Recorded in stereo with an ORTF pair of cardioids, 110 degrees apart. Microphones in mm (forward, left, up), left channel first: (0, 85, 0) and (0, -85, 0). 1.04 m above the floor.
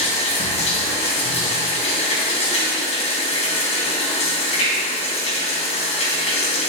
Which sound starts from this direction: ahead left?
Running water, at 0.0 s.